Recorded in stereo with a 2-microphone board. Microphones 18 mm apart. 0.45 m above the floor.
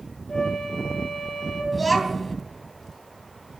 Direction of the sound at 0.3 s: 35° left (ahead or behind).